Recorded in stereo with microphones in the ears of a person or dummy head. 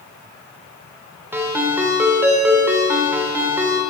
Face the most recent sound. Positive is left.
turn(degrees=-10)  # may be behind; listen again after turning